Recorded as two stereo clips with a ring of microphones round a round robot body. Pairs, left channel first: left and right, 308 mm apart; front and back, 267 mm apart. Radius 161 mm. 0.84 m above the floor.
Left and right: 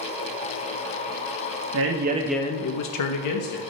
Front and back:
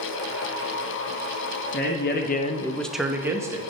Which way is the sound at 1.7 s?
50° right.